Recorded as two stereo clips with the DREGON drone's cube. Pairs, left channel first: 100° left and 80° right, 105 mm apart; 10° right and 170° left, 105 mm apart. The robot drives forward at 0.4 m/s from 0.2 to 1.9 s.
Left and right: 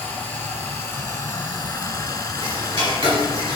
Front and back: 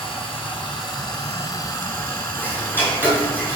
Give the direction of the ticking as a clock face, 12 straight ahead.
4 o'clock.